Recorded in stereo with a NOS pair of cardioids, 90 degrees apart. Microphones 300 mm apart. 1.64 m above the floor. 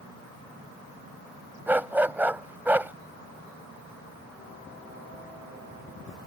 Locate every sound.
1.7 s a dog barking: 5° right